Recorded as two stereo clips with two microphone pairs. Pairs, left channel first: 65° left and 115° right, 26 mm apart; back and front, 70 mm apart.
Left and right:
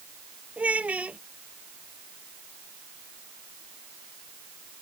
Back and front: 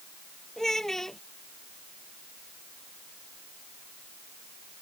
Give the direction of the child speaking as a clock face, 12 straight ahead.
3 o'clock.